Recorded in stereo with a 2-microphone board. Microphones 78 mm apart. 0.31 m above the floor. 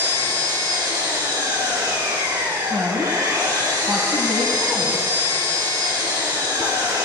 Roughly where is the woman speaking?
Centre.